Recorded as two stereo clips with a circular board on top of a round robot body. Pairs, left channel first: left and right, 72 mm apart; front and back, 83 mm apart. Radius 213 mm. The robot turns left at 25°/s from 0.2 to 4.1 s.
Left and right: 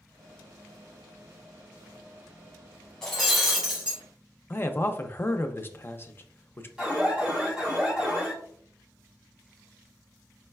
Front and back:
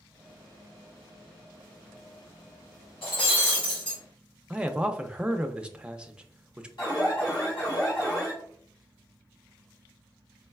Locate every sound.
3.0 s breaking glass: 5° left, 1.1 m; by 4.0 s 20° right, 1.1 m
4.5 s a man speaking: 110° left, 0.7 m
6.8 s an alarm: 15° right, 2.5 m